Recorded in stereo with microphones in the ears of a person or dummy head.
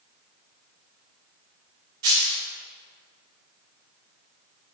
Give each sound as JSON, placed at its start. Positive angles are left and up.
{"t": 2.0, "sound": "a dropped coin", "side_deg": -35, "distance_m": 1.9}